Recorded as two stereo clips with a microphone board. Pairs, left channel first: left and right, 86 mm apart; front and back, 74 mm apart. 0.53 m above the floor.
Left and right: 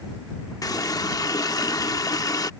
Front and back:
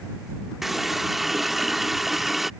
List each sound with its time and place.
0.6 s a running tap: 95° left